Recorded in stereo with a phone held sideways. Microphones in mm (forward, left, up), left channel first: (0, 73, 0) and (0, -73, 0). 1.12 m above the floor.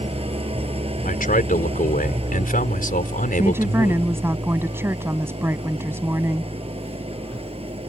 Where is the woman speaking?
15° right (ahead or behind).